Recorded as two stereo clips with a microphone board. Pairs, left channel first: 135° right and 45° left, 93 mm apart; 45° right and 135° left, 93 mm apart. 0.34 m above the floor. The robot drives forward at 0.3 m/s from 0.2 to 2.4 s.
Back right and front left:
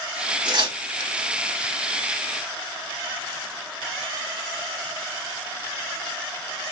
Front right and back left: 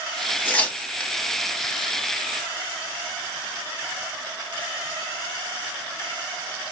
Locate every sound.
0.5 s tearing paper: 25° left, 1.1 m; by 1.1 s 30° left, 0.9 m